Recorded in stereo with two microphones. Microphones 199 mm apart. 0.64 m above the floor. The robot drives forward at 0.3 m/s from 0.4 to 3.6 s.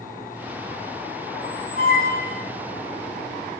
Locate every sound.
1.3 s a squeak: 45° left (ahead or behind), 1.6 m; by 2.5 s 35° left (ahead or behind), 1.9 m